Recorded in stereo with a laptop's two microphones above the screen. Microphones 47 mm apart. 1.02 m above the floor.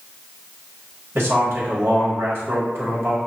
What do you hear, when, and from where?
1.1 s a man speaking: 50° right (ahead or behind), 1.6 m